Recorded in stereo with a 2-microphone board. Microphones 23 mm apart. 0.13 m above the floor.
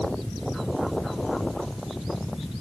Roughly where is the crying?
I don't hear crying.